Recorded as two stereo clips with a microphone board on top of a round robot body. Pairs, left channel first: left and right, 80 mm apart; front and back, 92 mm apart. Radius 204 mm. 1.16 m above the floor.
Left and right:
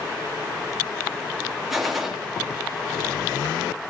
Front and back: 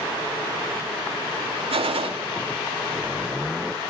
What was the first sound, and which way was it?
A gunshot, straight behind.